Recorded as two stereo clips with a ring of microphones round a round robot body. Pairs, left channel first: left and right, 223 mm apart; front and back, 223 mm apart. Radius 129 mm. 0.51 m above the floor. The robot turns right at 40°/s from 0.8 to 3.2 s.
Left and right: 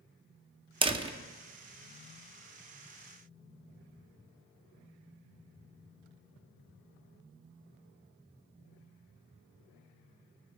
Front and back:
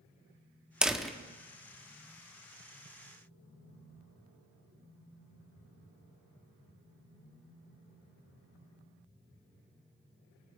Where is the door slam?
100° right, 0.8 m; by 1.1 s 85° right, 0.8 m.